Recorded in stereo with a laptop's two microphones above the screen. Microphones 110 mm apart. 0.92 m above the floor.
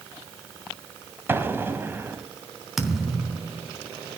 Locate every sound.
1.3 s an explosion: 20° right (ahead or behind), 2 m
2.8 s a thud: 5° right (ahead or behind), 3 m